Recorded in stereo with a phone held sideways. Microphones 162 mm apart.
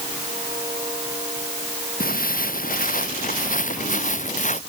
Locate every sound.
2.0 s footsteps: 60° left (ahead or behind); by 4.6 s 50° left (ahead or behind)